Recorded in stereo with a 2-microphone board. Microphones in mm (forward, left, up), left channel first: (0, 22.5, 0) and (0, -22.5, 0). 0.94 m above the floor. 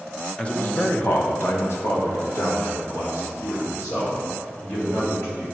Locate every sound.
0.4 s a man speaking: 20° left (ahead or behind), 0.5 m; by 5.5 s 80° left, 3 m